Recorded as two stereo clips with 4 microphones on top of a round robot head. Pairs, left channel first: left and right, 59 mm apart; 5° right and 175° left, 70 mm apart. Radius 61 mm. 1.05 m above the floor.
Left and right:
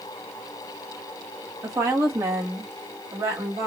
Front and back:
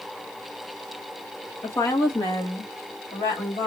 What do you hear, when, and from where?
1.6 s a woman speaking: 50° right, 1.4 m; by 3.7 s 40° right, 2.5 m